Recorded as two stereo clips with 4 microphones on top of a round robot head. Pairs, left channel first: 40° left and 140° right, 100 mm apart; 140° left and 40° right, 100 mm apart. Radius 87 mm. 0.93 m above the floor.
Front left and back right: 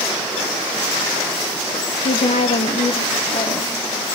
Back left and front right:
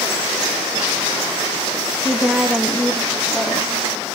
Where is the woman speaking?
35° left, 0.7 m; by 3.8 s 50° left, 2.5 m.